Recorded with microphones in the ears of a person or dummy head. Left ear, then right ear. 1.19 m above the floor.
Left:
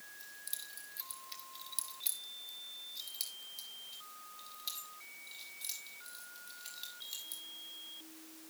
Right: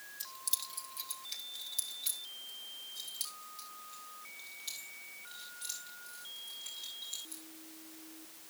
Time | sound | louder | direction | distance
0.2 | keys jangling | right 8 dB | 25° right (ahead or behind) | 1.0 m